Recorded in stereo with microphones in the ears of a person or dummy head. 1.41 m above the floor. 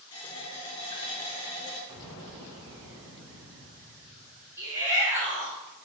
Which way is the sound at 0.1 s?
25° left (ahead or behind).